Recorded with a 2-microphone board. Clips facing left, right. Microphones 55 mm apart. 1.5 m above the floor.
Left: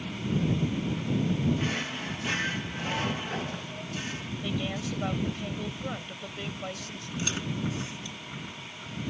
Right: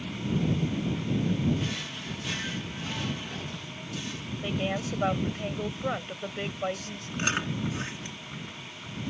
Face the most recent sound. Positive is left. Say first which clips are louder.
# right 3 dB
turn(degrees=-50)  # may be behind; listen again after turning